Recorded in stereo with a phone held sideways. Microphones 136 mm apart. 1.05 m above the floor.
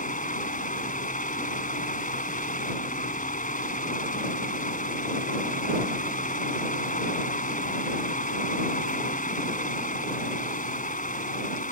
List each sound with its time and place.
0.0 s a fan: 80° left